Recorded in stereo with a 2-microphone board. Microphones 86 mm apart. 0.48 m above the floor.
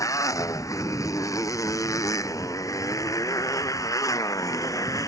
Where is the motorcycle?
40° left (ahead or behind); by 5.1 s 45° left (ahead or behind).